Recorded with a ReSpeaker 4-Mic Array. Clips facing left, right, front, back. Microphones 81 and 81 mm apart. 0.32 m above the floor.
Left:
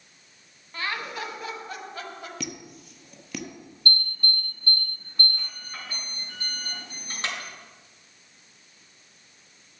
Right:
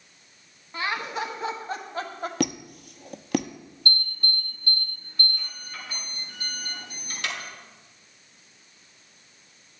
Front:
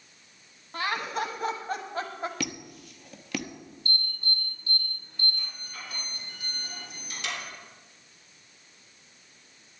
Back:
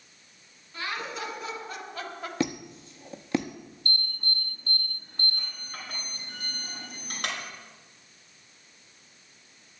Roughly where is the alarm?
Behind left.